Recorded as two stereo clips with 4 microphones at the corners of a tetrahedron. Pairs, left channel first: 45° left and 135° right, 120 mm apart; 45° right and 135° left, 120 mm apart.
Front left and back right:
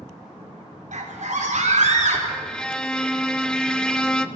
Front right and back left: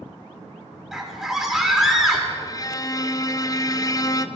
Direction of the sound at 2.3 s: 35° right.